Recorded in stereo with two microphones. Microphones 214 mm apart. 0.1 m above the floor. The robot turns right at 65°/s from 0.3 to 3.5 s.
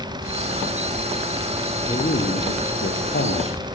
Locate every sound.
1.9 s a man speaking: 20° left, 4 m; by 3.6 s 125° left, 4 m